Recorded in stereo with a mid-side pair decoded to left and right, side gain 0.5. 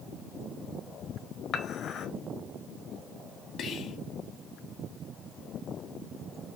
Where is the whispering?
55° left, 1.6 m.